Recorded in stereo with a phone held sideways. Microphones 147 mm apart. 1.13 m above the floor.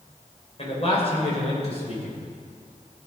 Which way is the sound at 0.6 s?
45° left (ahead or behind).